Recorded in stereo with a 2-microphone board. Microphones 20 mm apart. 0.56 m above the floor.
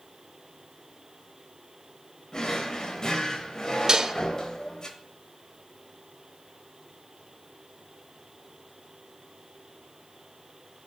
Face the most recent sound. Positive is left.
turn(degrees=-35)  # may be behind; listen again after turning